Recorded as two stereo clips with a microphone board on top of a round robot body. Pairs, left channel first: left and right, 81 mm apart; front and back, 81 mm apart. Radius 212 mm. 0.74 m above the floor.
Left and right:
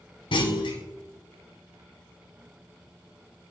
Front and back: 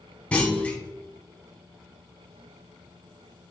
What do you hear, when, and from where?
0.3 s a clunk: 75° left, 1.3 m